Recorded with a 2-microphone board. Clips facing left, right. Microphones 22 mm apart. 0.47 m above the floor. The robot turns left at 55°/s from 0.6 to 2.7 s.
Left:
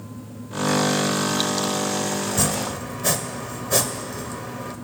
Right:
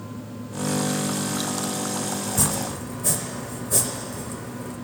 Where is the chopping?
25° left (ahead or behind), 1.0 m; by 4.8 s 45° left (ahead or behind), 1.0 m.